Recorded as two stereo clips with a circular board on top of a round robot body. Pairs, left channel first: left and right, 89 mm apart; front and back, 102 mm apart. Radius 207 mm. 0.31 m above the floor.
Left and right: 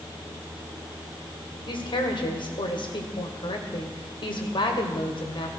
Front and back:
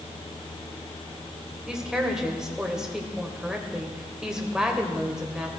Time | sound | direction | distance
1.7 | a woman speaking | 95° left | 3 m